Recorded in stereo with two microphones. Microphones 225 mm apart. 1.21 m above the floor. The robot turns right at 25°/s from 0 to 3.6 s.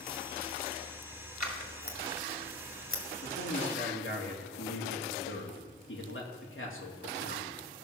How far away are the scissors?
About 2 m.